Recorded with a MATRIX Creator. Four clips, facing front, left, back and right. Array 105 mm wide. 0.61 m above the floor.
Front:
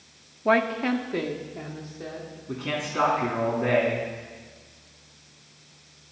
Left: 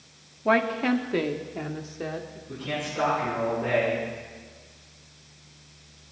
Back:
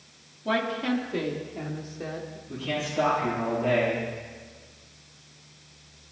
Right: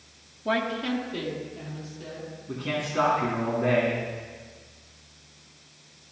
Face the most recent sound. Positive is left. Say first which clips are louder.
# right 2 dB, front 1 dB
turn(degrees=-30)